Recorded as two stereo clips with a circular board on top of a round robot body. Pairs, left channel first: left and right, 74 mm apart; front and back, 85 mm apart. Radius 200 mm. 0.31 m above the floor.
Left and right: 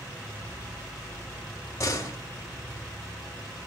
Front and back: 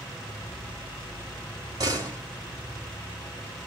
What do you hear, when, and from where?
1.8 s a door slam: 140° left, 4 m